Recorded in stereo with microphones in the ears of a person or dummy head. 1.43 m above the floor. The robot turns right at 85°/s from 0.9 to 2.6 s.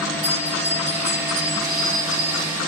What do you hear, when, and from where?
0.2 s a bell: 115° right, 3 m; by 2.5 s 20° left, 3 m